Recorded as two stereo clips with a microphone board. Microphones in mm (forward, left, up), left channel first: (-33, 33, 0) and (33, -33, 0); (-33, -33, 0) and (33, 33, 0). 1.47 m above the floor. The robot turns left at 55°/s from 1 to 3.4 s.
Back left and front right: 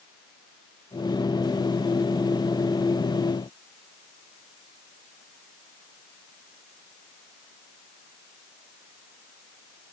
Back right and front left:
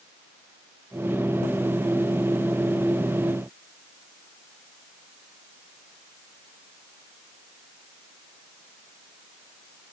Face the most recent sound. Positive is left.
No sound to turn to.